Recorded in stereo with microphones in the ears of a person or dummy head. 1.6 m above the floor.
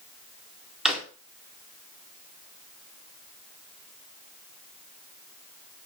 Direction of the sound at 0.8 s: Centre (ahead or behind).